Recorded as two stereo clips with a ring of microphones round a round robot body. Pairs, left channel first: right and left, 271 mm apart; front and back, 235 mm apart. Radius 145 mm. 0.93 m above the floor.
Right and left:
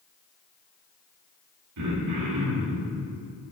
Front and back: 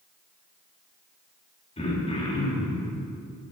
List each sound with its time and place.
1.8 s throat clearing: 65° left, 1.9 m